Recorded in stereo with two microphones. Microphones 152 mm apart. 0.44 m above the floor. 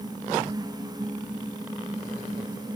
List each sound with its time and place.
Only background noise.